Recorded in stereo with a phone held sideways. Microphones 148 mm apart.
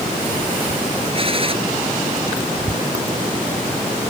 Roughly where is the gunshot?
Right.